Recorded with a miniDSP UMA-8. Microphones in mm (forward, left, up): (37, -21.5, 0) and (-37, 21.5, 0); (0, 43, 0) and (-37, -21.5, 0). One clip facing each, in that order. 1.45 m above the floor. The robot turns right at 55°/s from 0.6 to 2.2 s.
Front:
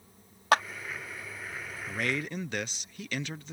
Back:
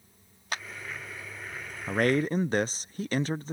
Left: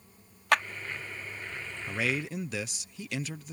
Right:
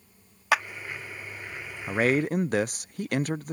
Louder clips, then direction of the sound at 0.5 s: Front 12 dB, right 1 dB; 35° right.